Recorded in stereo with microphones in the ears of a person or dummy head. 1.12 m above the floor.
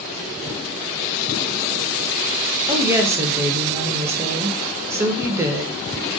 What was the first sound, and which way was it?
A woman speaking, 15° right (ahead or behind).